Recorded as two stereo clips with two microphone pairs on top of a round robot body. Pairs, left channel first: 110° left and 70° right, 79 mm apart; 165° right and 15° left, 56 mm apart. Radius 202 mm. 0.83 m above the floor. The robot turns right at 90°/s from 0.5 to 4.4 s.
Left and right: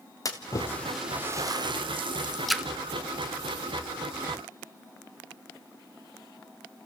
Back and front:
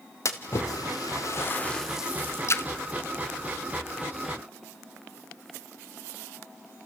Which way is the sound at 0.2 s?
160° left.